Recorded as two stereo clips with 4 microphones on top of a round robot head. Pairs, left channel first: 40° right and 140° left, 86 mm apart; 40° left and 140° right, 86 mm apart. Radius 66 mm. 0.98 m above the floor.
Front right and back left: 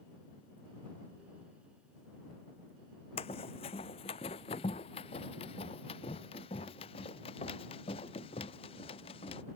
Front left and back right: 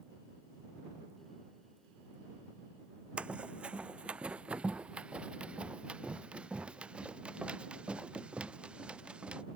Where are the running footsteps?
65° right; by 9.4 s 60° right.